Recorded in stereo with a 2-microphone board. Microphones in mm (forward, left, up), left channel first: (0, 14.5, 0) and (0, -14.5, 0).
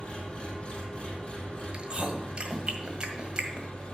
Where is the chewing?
30° right (ahead or behind), 1.6 m.